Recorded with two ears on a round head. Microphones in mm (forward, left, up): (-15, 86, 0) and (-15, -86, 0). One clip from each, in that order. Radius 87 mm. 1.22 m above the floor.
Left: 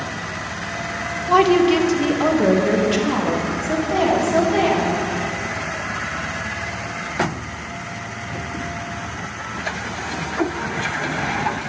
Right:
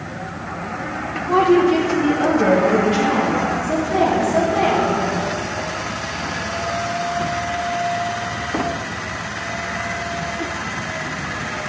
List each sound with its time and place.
1.3 s a woman speaking: 65° left (ahead or behind), 1.1 m; by 5.0 s 85° left, 3.5 m